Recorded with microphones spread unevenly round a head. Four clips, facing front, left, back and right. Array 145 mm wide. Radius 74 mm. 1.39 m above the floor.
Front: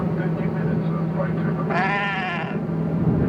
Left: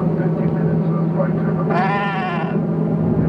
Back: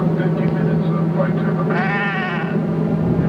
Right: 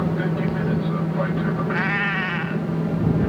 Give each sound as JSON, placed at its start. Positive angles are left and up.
{"t": 0.0, "sound": "an aircraft", "azimuth_deg": 135}
{"t": 1.7, "sound": "a cat meowing", "azimuth_deg": 70}